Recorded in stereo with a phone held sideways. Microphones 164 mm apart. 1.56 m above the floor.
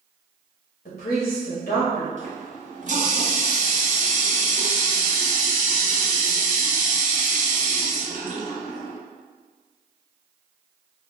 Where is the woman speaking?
60° left (ahead or behind), 0.7 m.